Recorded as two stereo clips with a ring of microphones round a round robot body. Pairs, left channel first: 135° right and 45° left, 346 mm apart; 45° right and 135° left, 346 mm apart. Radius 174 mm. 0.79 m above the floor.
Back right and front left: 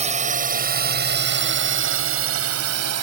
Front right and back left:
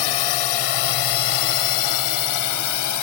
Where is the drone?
25° right; by 3.0 s 5° right.